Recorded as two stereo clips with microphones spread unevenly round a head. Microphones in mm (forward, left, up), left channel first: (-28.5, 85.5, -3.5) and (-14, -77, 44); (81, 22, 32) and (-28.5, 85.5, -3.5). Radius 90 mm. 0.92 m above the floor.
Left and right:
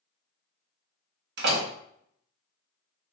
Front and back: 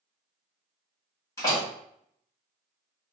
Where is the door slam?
110° right, 1.0 m.